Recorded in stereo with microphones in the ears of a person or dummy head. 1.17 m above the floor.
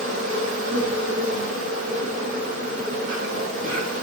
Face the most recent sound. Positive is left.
turn(degrees=-85)